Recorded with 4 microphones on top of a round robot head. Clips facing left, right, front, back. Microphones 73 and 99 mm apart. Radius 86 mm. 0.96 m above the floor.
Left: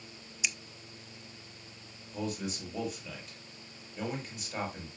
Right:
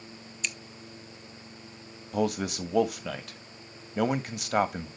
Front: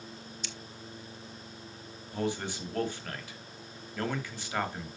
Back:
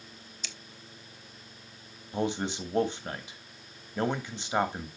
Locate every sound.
0.4 s scissors: 175° left, 0.7 m
2.1 s a man speaking: 110° right, 1.4 m